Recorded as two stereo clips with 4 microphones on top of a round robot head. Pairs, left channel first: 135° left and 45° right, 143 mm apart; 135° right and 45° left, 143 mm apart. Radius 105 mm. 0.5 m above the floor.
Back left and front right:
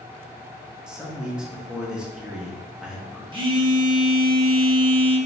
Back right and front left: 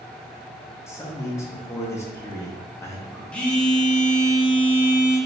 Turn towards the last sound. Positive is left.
turn(degrees=-55)